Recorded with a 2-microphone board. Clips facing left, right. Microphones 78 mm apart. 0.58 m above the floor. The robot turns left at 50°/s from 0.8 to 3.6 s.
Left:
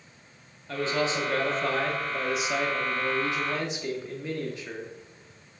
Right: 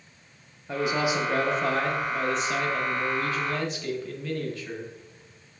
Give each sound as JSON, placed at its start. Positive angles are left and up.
{"t": 0.7, "sound": "a man speaking", "side_deg": -15, "distance_m": 0.6}